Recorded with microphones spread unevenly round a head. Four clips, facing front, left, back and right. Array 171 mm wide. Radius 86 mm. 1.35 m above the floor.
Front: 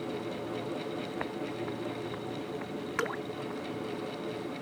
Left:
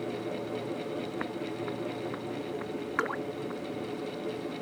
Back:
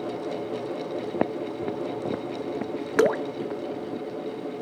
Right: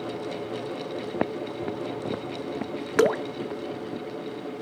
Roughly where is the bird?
I don't hear a bird.